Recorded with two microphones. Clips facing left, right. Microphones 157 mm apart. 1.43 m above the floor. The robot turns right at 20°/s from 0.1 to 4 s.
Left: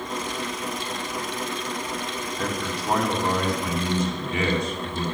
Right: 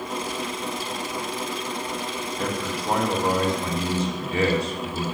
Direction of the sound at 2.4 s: 175° right.